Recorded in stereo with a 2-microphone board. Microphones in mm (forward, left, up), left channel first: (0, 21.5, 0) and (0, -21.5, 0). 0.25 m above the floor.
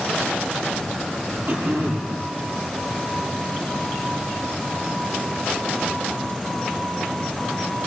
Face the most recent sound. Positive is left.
turn(degrees=-55)  # may be behind; listen again after turning